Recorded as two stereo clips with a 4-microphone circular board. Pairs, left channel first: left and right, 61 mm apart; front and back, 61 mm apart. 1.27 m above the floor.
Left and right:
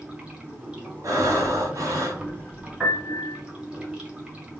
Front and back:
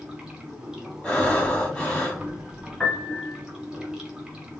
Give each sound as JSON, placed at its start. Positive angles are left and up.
{"t": 0.0, "sound": "running water", "azimuth_deg": -120, "distance_m": 0.9}
{"t": 1.0, "sound": "breathing", "azimuth_deg": -65, "distance_m": 1.2}
{"t": 2.8, "sound": "a piano", "azimuth_deg": -50, "distance_m": 1.1}